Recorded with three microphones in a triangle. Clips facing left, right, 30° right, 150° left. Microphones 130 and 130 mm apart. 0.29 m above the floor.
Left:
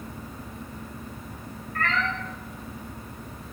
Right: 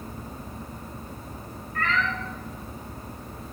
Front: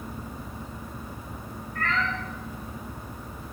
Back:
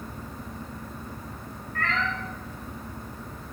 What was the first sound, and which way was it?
A cat meowing, 135° left.